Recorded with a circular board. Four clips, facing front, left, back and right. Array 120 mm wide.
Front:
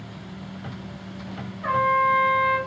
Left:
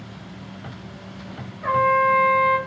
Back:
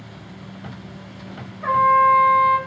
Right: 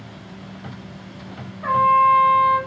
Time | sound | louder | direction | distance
1.6 | a trumpet | right 3 dB, back 6 dB | 175° right | 2 m